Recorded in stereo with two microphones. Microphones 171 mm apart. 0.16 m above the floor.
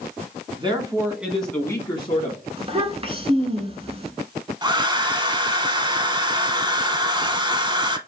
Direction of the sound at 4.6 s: 25° right (ahead or behind).